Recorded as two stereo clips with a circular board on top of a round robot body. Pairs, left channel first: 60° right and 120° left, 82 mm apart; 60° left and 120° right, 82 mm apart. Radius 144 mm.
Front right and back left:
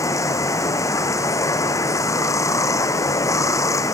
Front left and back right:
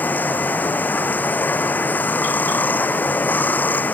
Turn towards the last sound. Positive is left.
turn(degrees=-10)